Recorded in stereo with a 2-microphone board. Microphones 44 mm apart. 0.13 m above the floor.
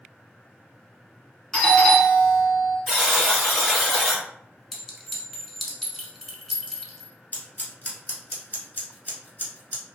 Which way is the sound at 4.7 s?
Centre (ahead or behind).